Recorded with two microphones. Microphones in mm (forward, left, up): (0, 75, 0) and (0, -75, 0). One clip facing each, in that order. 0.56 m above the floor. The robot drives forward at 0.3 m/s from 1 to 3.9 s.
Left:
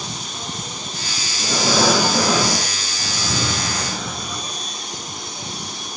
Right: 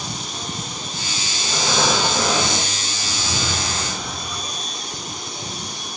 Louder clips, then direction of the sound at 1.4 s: Left 4 dB; 80° left.